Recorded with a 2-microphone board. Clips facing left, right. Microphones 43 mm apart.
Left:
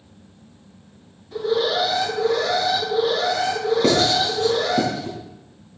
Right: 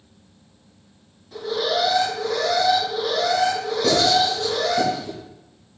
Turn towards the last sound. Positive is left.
turn(degrees=35)  # may be behind; listen again after turning